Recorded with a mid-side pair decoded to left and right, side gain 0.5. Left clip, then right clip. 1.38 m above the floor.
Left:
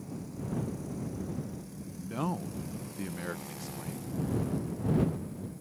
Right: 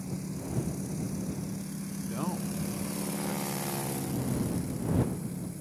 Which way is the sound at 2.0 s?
10° left.